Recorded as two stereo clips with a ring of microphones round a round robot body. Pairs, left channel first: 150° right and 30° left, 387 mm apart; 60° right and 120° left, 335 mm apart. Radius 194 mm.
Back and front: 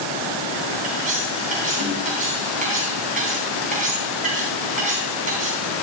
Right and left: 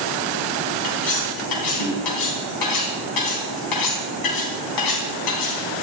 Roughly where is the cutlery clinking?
Ahead right.